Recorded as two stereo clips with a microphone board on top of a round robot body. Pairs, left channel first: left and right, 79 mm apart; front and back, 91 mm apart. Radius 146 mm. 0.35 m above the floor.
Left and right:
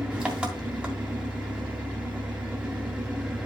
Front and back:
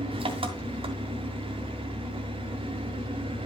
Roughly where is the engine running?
Behind.